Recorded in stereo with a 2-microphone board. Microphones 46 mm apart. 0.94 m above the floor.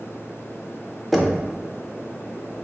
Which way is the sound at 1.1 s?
Centre (ahead or behind).